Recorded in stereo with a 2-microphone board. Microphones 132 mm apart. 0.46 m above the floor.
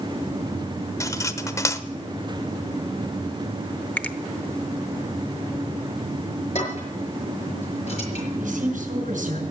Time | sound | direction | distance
1.0 | cutlery clinking | 25° left (ahead or behind) | 0.9 m
4.0 | a finger snap | 10° left (ahead or behind) | 0.8 m
6.5 | dishes clattering | 55° left (ahead or behind) | 6 m
8.4 | a woman speaking | 75° right (ahead or behind) | 5.5 m